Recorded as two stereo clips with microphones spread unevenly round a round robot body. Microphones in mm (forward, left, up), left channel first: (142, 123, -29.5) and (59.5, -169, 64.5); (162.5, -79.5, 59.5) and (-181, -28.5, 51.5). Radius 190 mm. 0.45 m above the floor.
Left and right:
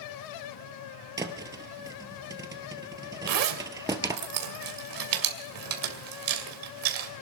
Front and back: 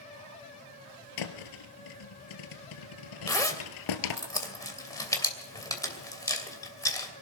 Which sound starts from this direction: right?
A zipper, at 3.3 s.